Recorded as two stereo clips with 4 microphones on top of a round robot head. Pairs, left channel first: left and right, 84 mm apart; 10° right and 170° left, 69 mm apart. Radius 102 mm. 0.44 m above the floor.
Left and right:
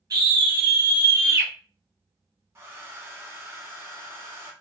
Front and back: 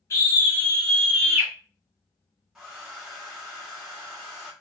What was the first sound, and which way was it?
A scream, 45° right.